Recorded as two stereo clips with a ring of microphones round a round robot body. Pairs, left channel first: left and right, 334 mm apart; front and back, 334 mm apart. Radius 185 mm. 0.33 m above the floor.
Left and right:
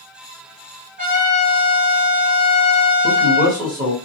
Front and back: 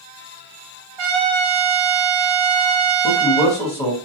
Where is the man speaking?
55° right, 1.1 m.